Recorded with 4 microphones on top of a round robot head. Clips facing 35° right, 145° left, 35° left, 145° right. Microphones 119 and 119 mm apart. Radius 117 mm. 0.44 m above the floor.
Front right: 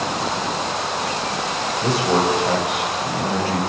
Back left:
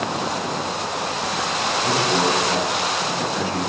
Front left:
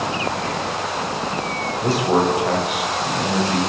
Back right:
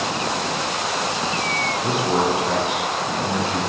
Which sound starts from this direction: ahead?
A man speaking, at 1.8 s.